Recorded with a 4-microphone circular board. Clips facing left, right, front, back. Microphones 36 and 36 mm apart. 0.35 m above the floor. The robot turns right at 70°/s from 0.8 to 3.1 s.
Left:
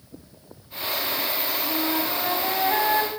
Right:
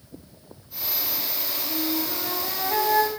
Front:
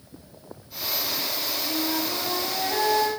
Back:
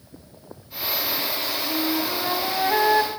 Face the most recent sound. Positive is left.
turn(degrees=175)